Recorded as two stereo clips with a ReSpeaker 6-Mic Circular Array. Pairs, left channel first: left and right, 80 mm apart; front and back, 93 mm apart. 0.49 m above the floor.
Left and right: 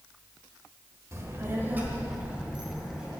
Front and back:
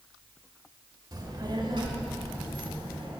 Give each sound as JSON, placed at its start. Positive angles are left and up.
{"t": 1.1, "sound": "a child speaking", "azimuth_deg": -140, "distance_m": 1.1}